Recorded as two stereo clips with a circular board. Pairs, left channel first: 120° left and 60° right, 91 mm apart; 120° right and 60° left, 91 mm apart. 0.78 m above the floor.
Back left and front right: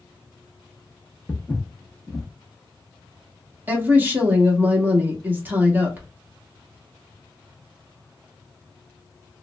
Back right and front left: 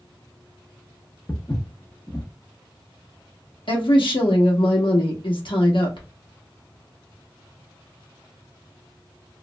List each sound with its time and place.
1.3 s footsteps: 150° right, 0.8 m
3.7 s a woman speaking: 125° right, 1.0 m